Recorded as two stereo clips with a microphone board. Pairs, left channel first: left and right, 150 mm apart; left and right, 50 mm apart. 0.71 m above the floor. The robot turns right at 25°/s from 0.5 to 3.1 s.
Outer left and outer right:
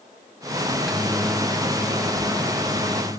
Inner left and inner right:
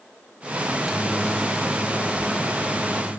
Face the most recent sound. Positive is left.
turn(degrees=55)